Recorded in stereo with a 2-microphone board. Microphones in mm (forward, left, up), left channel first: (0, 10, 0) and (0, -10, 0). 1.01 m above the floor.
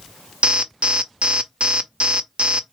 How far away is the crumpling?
No crumpling in this recording.